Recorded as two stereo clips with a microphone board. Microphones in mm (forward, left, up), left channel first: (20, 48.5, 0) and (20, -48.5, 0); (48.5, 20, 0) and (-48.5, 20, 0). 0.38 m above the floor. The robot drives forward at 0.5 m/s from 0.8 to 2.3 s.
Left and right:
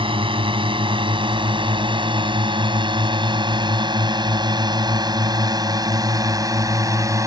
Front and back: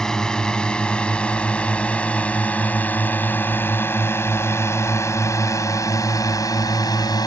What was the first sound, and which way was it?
A drone, 85° right.